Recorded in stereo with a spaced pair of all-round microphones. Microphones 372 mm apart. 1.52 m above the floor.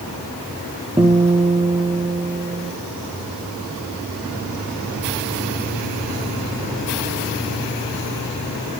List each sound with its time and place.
1.0 s a guitar: 15° right (ahead or behind), 0.8 m